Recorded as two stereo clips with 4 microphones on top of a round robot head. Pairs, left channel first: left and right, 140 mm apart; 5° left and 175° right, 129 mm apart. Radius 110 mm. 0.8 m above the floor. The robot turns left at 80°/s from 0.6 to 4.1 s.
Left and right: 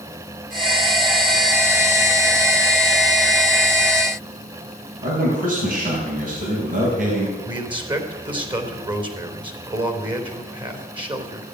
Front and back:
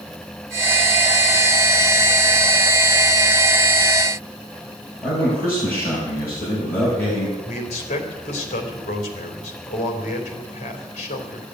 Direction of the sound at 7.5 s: 35° right.